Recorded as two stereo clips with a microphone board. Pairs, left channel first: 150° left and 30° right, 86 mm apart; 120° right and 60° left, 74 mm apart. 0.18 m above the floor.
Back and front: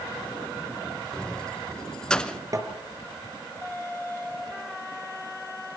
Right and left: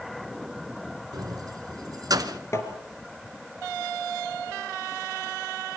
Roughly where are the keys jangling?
Left.